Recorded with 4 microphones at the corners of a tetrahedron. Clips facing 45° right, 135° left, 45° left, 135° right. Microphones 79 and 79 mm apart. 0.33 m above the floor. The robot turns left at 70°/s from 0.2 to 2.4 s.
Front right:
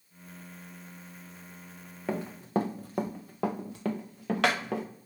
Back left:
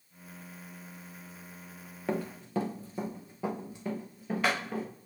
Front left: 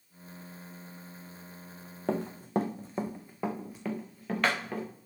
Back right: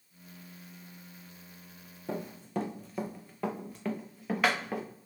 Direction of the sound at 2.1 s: 45° left.